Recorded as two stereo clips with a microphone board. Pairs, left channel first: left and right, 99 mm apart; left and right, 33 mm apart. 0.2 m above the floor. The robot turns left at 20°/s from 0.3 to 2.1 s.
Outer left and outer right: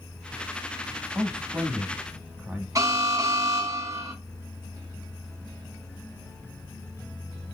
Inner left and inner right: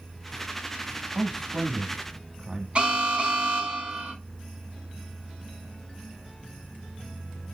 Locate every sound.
1.1 s a man speaking: 20° right (ahead or behind), 1.0 m
2.8 s an alarm: 35° right (ahead or behind), 3 m